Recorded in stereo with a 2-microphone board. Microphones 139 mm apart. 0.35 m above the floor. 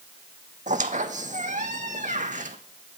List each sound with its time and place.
0.7 s a squeak: 65° right (ahead or behind), 0.7 m